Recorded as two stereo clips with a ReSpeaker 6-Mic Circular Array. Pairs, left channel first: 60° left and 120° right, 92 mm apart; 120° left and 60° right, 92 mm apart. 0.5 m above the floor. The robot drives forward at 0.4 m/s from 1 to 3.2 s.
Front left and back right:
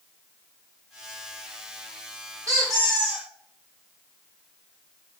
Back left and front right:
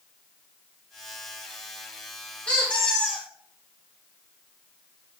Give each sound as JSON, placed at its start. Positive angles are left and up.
{"t": 2.5, "sound": "a squeak", "azimuth_deg": -165, "distance_m": 1.0}